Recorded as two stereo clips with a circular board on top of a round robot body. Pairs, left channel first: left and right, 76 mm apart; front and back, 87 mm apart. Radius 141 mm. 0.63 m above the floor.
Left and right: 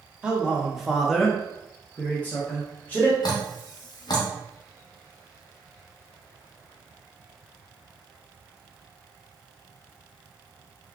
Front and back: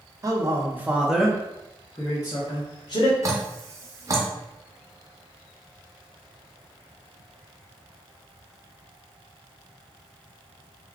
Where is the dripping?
125° left, 0.5 m.